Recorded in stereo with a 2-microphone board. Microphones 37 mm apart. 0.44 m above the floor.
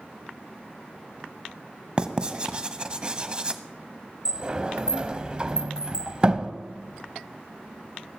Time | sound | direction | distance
2.0 | writing | 25° right (ahead or behind) | 1.0 m
4.2 | a sliding door | 25° right (ahead or behind) | 0.9 m